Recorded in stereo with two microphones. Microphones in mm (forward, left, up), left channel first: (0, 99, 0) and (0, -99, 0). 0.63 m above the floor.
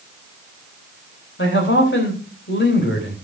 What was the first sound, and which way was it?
A man speaking, 70° left (ahead or behind).